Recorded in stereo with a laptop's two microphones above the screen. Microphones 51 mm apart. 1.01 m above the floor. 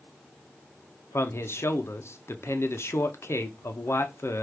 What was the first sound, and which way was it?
A man speaking, 60° left (ahead or behind).